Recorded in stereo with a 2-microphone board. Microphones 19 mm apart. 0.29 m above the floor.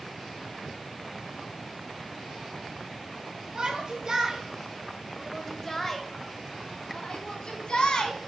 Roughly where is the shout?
Right.